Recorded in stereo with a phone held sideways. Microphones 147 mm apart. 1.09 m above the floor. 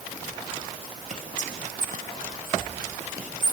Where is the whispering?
55° right (ahead or behind), 0.8 m.